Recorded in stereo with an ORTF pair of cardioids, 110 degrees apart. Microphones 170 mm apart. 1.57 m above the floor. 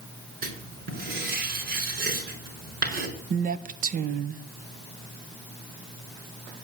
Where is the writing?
70° right, 5 m.